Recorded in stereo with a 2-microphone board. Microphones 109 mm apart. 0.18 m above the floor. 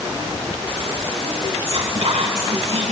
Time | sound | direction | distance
1.6 | whispering | 55° right (ahead or behind) | 2.5 m